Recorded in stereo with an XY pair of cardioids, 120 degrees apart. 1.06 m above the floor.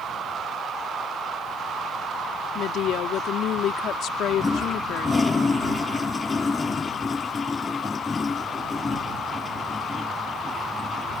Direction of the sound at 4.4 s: 25° left.